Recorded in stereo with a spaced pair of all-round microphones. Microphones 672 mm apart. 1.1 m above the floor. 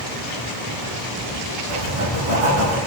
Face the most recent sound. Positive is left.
turn(degrees=-55)  # may be behind; listen again after turning